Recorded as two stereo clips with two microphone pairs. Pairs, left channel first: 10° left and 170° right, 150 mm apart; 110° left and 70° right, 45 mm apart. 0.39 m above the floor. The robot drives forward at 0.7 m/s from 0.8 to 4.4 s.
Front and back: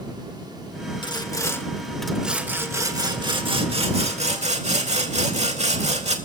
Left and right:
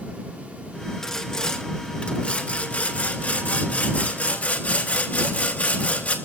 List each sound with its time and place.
1.0 s sawing: 40° left, 1.5 m; by 6.2 s 160° left, 2 m